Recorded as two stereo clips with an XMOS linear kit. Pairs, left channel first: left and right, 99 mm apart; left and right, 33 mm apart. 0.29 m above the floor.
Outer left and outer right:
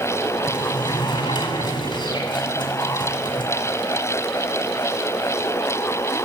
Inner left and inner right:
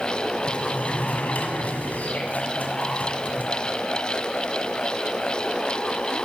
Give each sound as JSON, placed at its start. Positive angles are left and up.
{"t": 0.5, "sound": "a sliding door", "side_deg": 50, "distance_m": 1.6}